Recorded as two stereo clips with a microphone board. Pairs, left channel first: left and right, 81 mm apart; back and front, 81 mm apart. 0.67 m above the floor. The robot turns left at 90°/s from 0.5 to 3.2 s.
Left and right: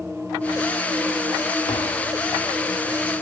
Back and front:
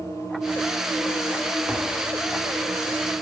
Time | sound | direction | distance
1.7 | tapping | 80° left | 0.8 m